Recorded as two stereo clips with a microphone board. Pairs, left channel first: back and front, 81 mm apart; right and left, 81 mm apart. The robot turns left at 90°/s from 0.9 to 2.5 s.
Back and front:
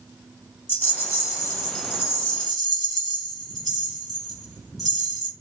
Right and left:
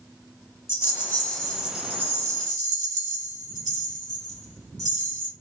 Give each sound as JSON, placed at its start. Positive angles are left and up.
{"t": 0.7, "sound": "a rattle", "azimuth_deg": -130, "distance_m": 0.9}